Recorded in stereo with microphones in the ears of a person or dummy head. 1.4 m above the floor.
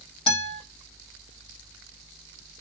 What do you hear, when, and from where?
0.3 s a guitar: 30° left (ahead or behind), 1.8 m